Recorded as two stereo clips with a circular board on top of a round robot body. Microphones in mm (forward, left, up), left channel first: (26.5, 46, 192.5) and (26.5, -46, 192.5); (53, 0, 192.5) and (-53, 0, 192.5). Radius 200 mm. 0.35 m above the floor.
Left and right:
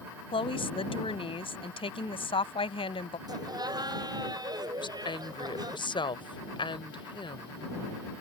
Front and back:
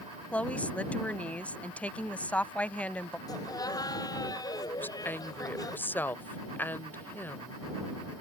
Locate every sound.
0.3 s a woman speaking: 75° left
3.3 s laughter: 50° right
4.8 s a woman speaking: 70° left